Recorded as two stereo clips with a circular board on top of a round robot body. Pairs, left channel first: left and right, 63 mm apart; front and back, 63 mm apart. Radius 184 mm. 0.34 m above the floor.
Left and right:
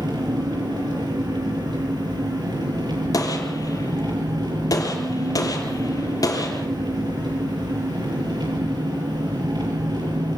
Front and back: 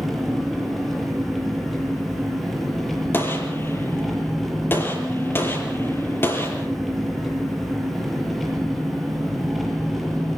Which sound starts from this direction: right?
An engine running, at 0.0 s.